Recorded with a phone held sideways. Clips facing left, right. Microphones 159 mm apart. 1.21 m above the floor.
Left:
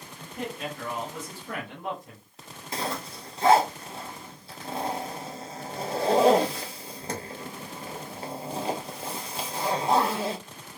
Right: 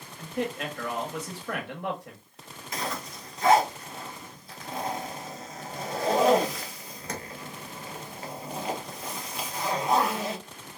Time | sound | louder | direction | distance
0.2 | a man speaking | right 4 dB | 75° right (ahead or behind) | 1.0 m
2.7 | a zipper | left 2 dB | 30° left (ahead or behind) | 0.7 m